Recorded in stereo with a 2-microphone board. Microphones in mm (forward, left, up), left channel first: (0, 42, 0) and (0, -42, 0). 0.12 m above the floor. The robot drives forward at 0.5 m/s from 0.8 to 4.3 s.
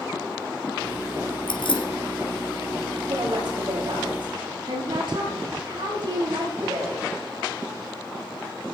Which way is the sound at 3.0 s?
60° right (ahead or behind).